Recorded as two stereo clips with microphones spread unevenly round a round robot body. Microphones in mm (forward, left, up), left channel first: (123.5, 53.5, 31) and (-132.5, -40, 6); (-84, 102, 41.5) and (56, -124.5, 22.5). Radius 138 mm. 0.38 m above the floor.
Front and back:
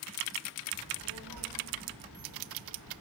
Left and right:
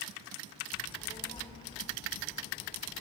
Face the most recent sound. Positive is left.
turn(degrees=-165)